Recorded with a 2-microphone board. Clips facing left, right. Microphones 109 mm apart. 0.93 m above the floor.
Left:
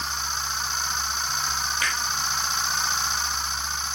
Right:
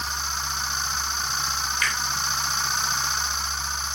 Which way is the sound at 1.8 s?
35° left (ahead or behind).